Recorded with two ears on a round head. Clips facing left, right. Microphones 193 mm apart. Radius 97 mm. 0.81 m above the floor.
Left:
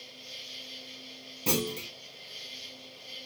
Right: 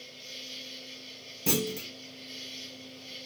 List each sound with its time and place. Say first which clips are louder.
0.0 s an insect: right 2 dB; 40° right (ahead or behind), 2 m
1.5 s a clunk: right 1 dB; 10° right (ahead or behind), 0.9 m